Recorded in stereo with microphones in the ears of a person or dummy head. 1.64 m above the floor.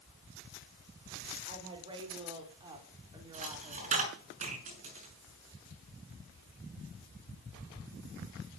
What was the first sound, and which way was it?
A woman speaking, 25° right (ahead or behind).